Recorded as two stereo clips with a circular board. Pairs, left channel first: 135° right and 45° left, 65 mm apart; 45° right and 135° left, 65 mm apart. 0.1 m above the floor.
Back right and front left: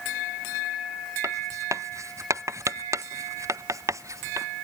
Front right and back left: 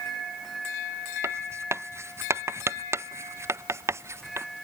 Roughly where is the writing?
Left.